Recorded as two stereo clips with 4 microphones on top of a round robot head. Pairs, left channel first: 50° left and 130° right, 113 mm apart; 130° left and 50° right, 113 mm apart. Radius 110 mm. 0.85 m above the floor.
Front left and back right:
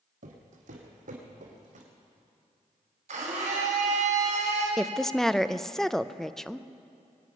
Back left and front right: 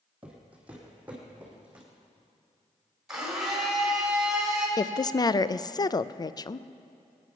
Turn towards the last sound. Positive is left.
turn(degrees=135)